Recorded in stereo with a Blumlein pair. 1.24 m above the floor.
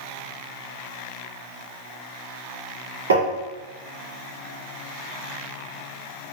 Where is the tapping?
65° right, 1.7 m.